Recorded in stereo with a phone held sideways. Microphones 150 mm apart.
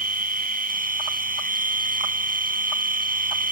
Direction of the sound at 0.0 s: 70° right (ahead or behind).